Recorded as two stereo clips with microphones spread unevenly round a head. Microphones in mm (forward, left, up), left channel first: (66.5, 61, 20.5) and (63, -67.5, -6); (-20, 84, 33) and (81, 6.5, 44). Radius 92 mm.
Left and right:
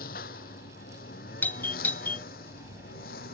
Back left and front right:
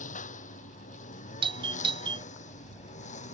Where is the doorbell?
5° left.